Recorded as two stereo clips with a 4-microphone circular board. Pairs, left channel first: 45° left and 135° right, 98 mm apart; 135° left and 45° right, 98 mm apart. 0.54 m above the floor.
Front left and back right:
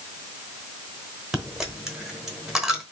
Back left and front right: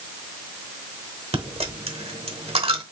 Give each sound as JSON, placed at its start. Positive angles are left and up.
{"t": 1.3, "sound": "a dropped coin", "azimuth_deg": -50, "distance_m": 0.9}